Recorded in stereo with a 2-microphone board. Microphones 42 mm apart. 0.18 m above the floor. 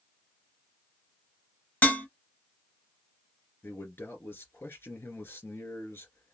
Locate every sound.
1.8 s dishes clattering: 45° left (ahead or behind), 1.1 m
3.6 s a man speaking: 65° left (ahead or behind), 2 m